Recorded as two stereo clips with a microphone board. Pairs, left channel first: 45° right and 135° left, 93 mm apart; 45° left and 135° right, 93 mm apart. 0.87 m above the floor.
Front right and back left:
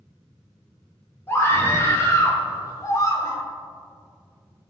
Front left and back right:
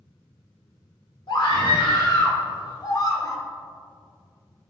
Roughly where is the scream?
Ahead.